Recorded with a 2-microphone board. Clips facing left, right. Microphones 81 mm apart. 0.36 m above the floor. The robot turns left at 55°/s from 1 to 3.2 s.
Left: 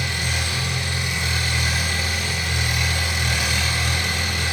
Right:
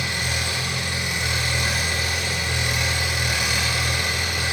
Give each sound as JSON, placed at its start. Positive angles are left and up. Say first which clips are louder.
{"t": 0.0, "sound": "an engine running", "louder": "even", "azimuth_deg": -50, "distance_m": 2.0}